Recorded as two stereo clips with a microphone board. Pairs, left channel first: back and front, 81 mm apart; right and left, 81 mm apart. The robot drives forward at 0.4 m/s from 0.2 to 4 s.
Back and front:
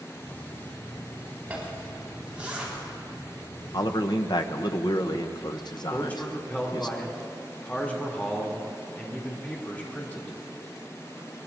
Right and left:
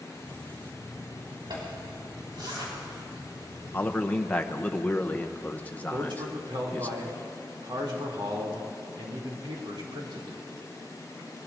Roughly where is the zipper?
Left.